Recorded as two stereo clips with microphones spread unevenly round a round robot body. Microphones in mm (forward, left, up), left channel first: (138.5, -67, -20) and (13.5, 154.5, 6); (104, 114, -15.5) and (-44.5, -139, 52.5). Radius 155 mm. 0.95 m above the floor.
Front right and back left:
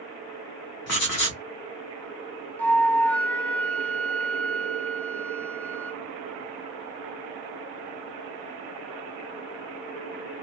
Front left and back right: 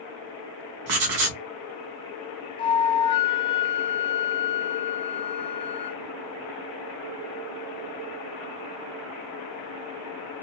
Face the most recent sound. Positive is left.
turn(degrees=15)